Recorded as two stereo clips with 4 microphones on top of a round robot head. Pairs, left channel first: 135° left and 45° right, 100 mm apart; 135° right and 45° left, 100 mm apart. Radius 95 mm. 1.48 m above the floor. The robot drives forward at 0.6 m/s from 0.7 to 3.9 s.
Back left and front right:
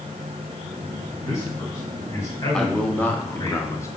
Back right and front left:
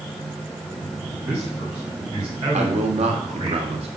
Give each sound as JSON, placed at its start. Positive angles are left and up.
{"t": 1.2, "sound": "a man speaking", "azimuth_deg": 70, "distance_m": 6.5}
{"t": 2.5, "sound": "a man speaking", "azimuth_deg": 50, "distance_m": 2.0}